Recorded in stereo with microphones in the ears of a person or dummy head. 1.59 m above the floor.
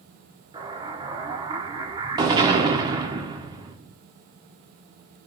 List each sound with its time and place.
0.5 s an explosion: 20° right (ahead or behind), 0.6 m